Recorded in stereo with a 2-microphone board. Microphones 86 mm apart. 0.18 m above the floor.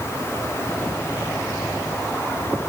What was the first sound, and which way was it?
Only background noise.